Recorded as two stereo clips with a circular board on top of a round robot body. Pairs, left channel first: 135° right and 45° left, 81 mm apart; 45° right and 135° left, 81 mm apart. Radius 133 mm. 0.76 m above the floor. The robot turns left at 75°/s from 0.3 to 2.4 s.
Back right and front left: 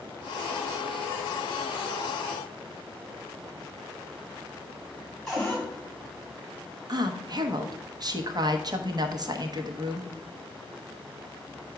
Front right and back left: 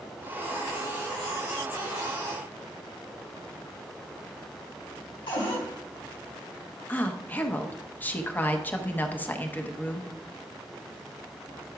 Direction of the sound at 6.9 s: 20° left.